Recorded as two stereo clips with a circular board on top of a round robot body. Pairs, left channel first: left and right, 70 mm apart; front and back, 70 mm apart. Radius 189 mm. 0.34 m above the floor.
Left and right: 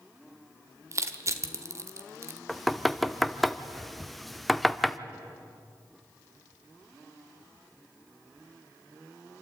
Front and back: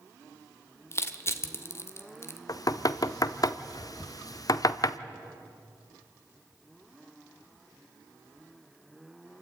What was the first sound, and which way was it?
Crushing, 50° right.